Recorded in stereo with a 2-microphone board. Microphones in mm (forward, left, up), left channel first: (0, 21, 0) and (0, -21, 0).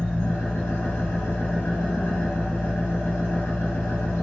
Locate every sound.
0.0 s an engine running: 60° left (ahead or behind), 1.9 m